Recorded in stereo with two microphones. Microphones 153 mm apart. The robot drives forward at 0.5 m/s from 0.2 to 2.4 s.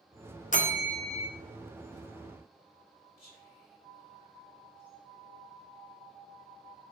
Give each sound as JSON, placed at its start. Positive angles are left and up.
{"t": 0.5, "sound": "a bell", "side_deg": 55, "distance_m": 0.7}
{"t": 3.2, "sound": "whispering", "side_deg": 75, "distance_m": 2.0}